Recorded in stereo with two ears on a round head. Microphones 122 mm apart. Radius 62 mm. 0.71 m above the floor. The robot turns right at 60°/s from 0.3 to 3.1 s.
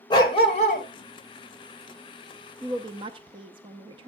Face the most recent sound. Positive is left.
turn(degrees=-35)  # may be behind; listen again after turning